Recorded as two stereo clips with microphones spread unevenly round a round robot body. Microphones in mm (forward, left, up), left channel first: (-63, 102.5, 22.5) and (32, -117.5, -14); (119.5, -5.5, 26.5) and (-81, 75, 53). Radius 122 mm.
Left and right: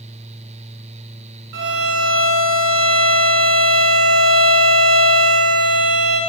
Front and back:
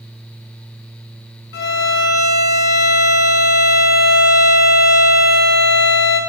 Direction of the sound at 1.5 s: 50° right.